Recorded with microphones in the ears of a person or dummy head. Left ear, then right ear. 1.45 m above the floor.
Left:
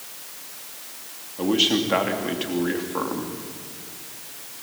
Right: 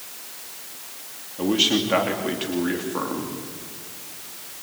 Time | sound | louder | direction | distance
1.4 | a man speaking | even | 5° left (ahead or behind) | 3 m